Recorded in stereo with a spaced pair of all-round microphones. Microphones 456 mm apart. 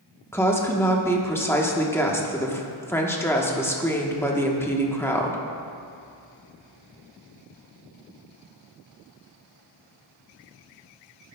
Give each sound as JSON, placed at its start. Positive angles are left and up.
{"t": 0.3, "sound": "a woman speaking", "side_deg": 5, "distance_m": 1.0}